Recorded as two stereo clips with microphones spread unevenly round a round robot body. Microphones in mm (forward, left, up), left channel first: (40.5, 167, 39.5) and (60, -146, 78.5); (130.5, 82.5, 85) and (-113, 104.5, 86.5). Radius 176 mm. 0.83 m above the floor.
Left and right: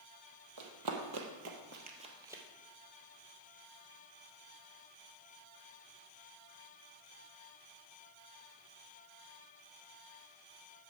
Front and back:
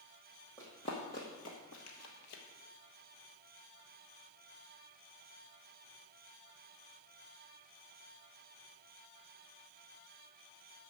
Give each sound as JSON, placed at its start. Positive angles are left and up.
{"t": 0.6, "sound": "running footsteps", "azimuth_deg": -85, "distance_m": 2.0}